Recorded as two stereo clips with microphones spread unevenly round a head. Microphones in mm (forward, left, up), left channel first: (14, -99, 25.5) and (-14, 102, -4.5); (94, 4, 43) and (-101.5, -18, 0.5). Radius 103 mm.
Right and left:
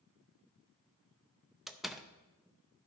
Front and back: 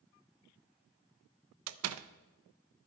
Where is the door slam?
170° right, 0.5 m.